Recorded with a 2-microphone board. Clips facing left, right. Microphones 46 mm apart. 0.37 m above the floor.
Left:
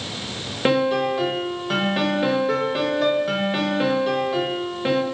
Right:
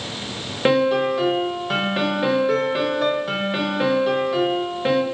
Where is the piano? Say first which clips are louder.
Right 2 dB; 5° right (ahead or behind), 0.6 m.